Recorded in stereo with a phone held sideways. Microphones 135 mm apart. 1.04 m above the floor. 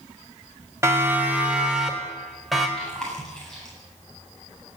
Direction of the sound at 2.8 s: 5° left (ahead or behind).